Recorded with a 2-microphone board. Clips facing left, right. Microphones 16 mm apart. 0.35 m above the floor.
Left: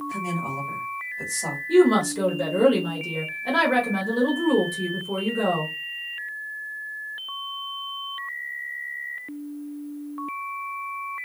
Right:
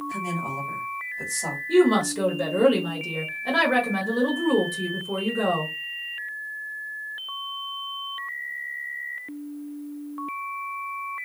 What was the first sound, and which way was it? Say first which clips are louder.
A woman speaking: left 1 dB; centre (ahead or behind).